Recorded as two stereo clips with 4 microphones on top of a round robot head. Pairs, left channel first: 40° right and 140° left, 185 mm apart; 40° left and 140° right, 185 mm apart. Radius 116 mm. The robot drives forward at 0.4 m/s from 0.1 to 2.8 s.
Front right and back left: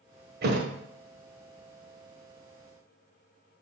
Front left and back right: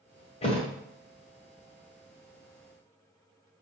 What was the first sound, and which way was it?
A thud, 100° left.